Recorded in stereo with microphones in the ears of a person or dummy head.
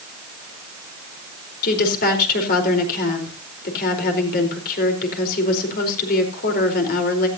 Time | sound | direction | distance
1.6 | a woman speaking | 50° left (ahead or behind) | 4 m